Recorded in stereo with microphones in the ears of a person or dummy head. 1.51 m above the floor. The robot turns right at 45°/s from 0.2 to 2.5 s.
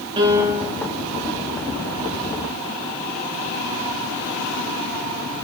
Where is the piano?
25° right (ahead or behind), 1.2 m; by 0.7 s 5° right (ahead or behind), 1.2 m.